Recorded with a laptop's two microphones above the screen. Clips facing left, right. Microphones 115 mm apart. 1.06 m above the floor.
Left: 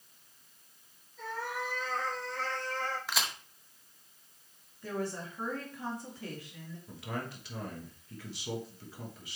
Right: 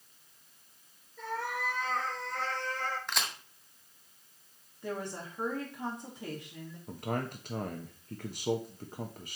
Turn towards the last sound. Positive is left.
turn(degrees=-50)  # may be behind; listen again after turning